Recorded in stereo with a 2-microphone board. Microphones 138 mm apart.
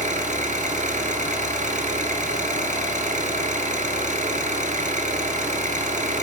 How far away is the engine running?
About 1.7 m.